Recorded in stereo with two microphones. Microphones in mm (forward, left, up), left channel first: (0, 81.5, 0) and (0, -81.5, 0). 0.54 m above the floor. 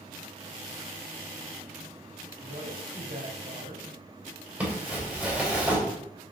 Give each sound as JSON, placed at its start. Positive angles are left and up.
{"t": 2.4, "sound": "a woman speaking", "side_deg": -70, "distance_m": 3.0}
{"t": 4.6, "sound": "crumpling", "side_deg": -10, "distance_m": 3.0}